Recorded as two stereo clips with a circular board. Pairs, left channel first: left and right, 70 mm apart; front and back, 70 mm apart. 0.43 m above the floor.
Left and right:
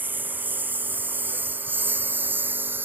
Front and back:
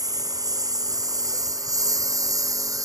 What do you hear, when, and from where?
0.0 s a lawn mower: 155° right; by 2.9 s 150° right